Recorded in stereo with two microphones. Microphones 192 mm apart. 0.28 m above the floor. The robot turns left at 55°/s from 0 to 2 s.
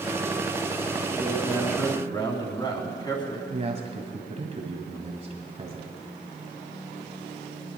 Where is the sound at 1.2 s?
160° right, 3 m; by 3.4 s 150° left, 3 m.